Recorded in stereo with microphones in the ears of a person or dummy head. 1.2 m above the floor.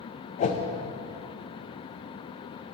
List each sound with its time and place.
0.4 s a whoosh: 35° left (ahead or behind), 0.6 m